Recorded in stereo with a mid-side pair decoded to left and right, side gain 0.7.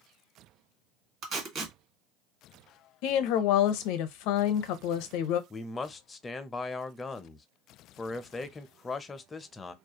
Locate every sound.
1.2 s tape being pulled: 45° right, 1.5 m
3.0 s a woman speaking: 70° left, 0.6 m
5.5 s a man speaking: 20° left, 0.5 m